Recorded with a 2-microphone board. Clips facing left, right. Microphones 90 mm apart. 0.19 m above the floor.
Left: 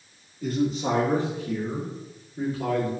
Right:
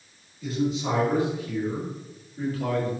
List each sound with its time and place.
0.4 s a man speaking: 45° left (ahead or behind), 3 m; by 2.9 s 20° left (ahead or behind), 4.5 m